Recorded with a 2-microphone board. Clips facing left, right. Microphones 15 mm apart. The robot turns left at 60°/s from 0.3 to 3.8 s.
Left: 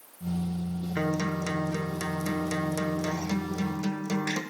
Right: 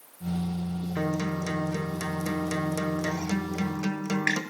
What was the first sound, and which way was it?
A guitar, 75° left.